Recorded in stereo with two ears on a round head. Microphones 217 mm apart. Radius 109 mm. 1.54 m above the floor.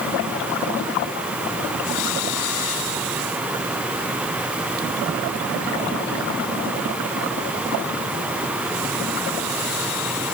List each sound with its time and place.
Only background noise.